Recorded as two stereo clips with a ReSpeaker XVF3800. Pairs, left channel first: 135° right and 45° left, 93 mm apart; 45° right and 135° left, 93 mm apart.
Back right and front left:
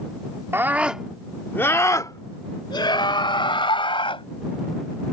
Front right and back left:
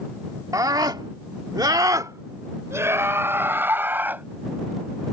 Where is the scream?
100° left; by 4.2 s 155° right.